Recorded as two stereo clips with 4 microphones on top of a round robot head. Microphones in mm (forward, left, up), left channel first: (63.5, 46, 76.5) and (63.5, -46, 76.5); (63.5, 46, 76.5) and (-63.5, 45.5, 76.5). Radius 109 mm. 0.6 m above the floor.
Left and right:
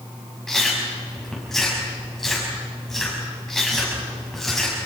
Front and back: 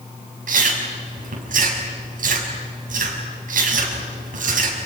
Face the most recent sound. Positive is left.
turn(degrees=180)